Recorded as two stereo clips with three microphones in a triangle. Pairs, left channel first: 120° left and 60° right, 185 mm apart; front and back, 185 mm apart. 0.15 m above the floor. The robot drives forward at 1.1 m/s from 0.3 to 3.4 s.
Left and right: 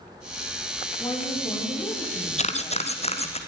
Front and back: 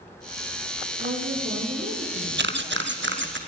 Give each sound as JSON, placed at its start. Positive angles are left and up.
{"t": 1.0, "sound": "a woman speaking", "azimuth_deg": -175, "distance_m": 7.5}
{"t": 2.4, "sound": "a camera shutter", "azimuth_deg": 170, "distance_m": 1.0}